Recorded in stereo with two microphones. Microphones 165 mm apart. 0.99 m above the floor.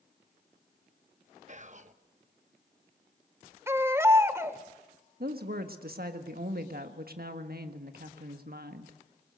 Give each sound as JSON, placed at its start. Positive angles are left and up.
{"t": 1.5, "sound": "whispering", "side_deg": -45, "distance_m": 1.2}
{"t": 3.7, "sound": "a baby crying", "side_deg": -15, "distance_m": 1.0}
{"t": 5.2, "sound": "a woman speaking", "side_deg": -70, "distance_m": 1.5}